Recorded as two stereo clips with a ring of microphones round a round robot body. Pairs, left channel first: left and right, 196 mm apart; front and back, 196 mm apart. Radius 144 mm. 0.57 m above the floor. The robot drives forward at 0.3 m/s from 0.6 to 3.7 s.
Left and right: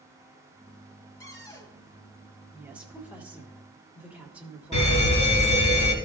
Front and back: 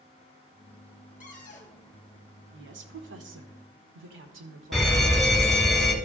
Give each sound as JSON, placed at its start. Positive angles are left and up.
{"t": 1.2, "sound": "a cupboard door", "azimuth_deg": 25, "distance_m": 1.7}
{"t": 2.5, "sound": "a woman speaking", "azimuth_deg": -175, "distance_m": 1.1}
{"t": 4.7, "sound": "a fire alarm", "azimuth_deg": 90, "distance_m": 2.5}